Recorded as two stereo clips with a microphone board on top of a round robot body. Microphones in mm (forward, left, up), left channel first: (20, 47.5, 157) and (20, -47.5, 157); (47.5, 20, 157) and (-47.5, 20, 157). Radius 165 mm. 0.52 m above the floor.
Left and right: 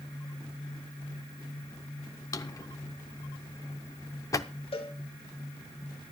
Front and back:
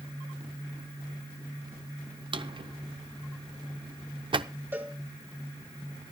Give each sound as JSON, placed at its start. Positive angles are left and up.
{"t": 2.3, "sound": "a drawer", "azimuth_deg": 145, "distance_m": 0.7}
{"t": 4.7, "sound": "a cowbell", "azimuth_deg": 110, "distance_m": 2.5}